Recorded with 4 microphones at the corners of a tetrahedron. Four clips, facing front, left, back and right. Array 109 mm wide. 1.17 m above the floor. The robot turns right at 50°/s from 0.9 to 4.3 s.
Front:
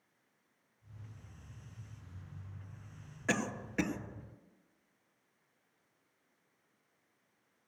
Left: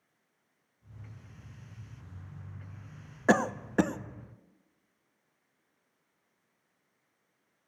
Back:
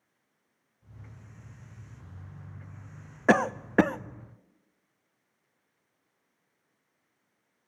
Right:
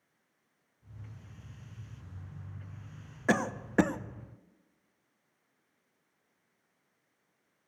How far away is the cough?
About 0.5 m.